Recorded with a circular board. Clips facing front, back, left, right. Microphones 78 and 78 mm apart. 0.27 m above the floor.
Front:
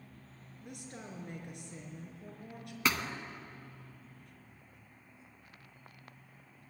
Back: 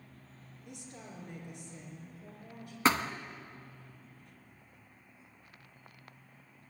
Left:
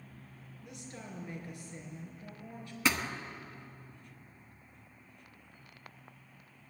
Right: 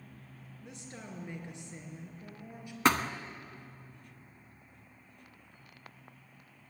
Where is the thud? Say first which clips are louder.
Back 5 dB, right 5 dB; 125° right, 1.1 m.